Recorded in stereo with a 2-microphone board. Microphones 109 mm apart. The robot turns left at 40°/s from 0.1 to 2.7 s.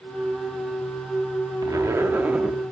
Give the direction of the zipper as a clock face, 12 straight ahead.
4 o'clock.